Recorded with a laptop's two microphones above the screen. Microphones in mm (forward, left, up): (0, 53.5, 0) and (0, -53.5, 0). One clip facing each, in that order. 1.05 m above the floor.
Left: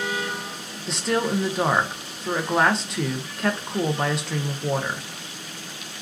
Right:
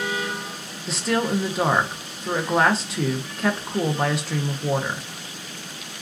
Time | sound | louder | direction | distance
0.9 | a woman speaking | right 1 dB | centre (ahead or behind) | 0.5 m